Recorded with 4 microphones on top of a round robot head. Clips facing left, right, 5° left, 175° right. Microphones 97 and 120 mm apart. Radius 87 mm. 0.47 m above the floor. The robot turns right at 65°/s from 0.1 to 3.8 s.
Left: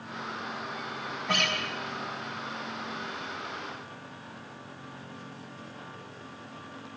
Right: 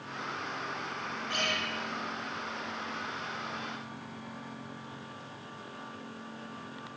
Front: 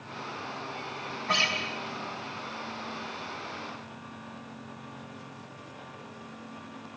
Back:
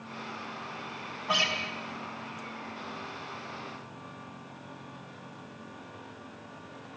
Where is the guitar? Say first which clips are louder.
Left 5 dB, even; 105° left, 4 m; by 1.6 s 120° left, 4 m.